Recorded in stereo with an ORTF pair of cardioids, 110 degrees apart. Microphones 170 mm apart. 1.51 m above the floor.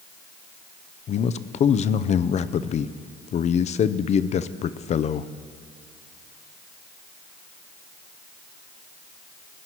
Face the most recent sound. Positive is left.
turn(degrees=40)